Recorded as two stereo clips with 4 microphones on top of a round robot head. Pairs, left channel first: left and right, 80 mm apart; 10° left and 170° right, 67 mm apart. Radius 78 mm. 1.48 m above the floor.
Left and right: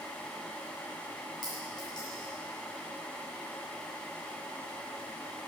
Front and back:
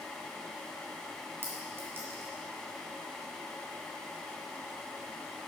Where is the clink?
135° left, 1.6 m.